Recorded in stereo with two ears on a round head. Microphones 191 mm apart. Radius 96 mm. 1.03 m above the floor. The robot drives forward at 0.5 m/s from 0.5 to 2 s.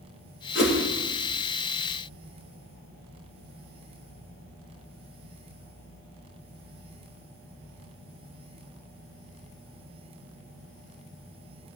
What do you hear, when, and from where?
0.6 s a whoosh: 55° left (ahead or behind), 1.7 m